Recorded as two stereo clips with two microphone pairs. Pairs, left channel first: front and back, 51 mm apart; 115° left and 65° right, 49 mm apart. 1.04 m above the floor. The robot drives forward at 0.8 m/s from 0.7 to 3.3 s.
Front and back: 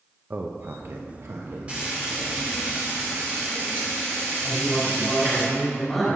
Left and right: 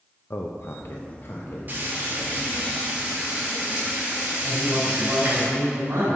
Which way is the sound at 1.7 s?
115° right.